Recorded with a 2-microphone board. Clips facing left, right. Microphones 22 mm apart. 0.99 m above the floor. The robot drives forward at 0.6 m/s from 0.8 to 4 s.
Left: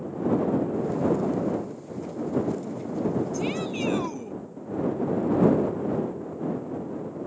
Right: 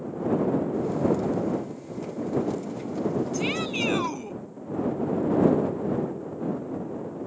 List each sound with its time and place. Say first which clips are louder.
3.3 s a shout: right 1 dB; 25° right (ahead or behind); by 4.4 s 30° right (ahead or behind)